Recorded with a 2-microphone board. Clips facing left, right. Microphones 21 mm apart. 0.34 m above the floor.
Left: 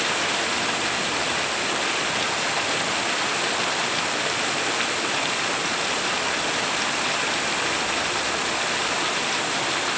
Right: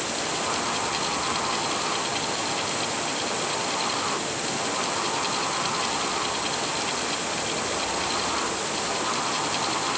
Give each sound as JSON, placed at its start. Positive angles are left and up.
{"t": 0.0, "sound": "running water", "side_deg": 45}